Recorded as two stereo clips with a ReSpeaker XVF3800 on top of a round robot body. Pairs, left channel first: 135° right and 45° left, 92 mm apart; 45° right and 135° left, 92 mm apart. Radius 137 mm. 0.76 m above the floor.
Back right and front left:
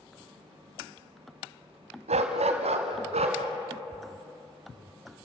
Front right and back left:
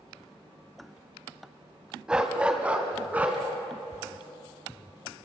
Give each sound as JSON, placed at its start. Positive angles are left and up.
{"t": 2.1, "sound": "a dog barking", "azimuth_deg": 50, "distance_m": 1.2}